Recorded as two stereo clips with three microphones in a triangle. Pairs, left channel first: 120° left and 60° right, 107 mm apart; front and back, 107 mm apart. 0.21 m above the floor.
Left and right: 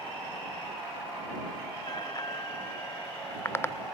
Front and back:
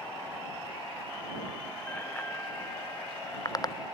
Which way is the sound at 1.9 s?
75° left.